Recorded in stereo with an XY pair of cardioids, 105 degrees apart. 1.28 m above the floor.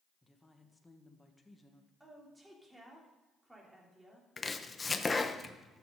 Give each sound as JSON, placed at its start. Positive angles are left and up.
{"t": 0.2, "sound": "a woman speaking", "azimuth_deg": 15, "distance_m": 1.3}
{"t": 2.0, "sound": "a woman speaking", "azimuth_deg": -10, "distance_m": 3.0}
{"t": 4.4, "sound": "chopping", "azimuth_deg": 25, "distance_m": 0.7}